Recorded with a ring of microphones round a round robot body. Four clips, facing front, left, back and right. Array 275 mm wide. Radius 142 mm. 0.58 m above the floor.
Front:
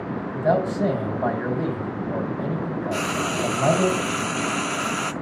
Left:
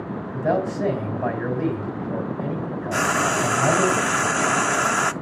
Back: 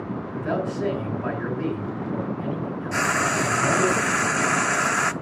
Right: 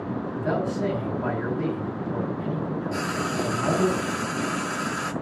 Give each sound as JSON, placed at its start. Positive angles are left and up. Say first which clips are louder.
{"t": 0.3, "sound": "a man speaking", "louder": "left 5 dB, front 5 dB", "azimuth_deg": 40, "distance_m": 3.5}
{"t": 2.9, "sound": "frying", "louder": "left 10 dB, back 5 dB", "azimuth_deg": 105, "distance_m": 0.5}